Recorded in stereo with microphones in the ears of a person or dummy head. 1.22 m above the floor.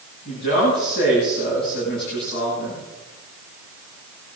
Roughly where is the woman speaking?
Left.